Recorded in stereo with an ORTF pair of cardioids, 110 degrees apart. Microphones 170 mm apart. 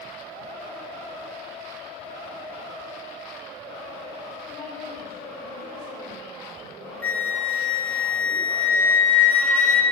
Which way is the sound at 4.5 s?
55° left.